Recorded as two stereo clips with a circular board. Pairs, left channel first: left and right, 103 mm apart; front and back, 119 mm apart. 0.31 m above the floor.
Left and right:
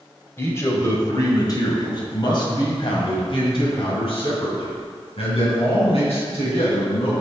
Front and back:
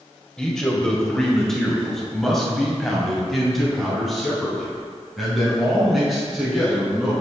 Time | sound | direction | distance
0.4 | a man speaking | 75° left | 1.6 m